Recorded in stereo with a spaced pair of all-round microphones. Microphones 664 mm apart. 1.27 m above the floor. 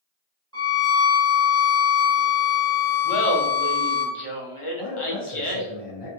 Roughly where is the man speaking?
Left.